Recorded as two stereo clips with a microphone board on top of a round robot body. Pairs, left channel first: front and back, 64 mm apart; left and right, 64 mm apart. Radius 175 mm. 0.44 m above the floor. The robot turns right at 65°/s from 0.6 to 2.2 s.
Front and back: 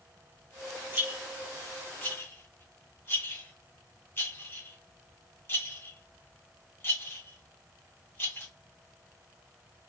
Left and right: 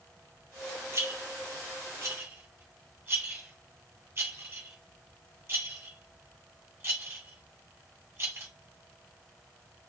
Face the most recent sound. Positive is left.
turn(degrees=-45)